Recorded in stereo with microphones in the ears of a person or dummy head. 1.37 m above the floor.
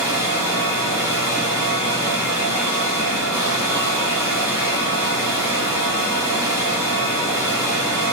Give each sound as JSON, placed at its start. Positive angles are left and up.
{"t": 0.0, "sound": "a fan", "side_deg": -15, "distance_m": 0.9}